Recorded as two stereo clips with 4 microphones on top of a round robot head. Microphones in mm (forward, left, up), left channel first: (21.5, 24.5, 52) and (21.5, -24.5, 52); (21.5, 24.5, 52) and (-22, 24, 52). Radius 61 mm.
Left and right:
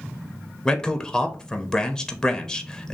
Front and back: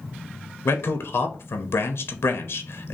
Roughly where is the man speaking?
Ahead.